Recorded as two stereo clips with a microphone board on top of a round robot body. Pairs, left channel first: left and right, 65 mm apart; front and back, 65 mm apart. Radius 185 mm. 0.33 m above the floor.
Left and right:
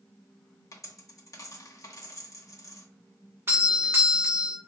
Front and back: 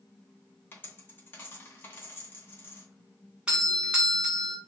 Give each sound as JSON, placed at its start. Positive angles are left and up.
{"t": 0.7, "sound": "a dropped coin", "azimuth_deg": 60, "distance_m": 1.2}
{"t": 3.5, "sound": "a doorbell", "azimuth_deg": -115, "distance_m": 1.7}